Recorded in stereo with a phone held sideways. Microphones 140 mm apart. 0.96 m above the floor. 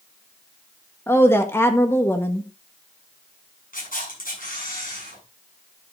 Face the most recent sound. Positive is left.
turn(degrees=85)